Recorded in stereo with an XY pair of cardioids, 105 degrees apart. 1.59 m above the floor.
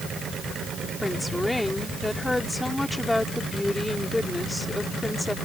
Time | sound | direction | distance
1.0 | a woman speaking | 15° left | ?